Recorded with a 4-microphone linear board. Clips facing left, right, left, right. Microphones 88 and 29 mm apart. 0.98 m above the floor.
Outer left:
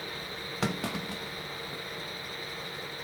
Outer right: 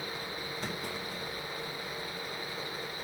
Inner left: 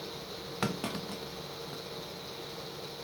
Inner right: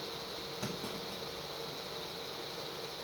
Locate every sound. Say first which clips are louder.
0.6 s a clunk: outer left 9 dB, inner left 9 dB; 70° left (ahead or behind), 1.0 m